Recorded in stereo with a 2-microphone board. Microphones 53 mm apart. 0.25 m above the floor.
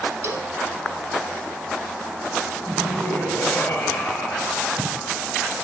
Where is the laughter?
35° left (ahead or behind), 5 m.